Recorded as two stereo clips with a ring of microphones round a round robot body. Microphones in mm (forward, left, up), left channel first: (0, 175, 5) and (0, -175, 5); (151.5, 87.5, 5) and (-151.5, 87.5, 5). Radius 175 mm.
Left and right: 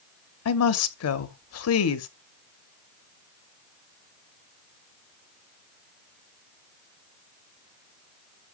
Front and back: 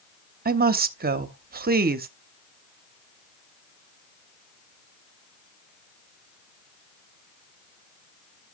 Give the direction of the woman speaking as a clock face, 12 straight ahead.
8 o'clock.